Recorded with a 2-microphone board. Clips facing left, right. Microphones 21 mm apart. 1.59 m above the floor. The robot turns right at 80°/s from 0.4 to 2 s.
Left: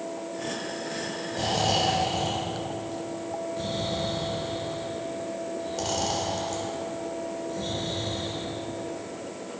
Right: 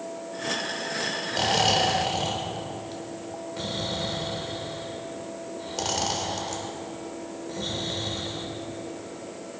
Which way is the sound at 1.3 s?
65° right (ahead or behind).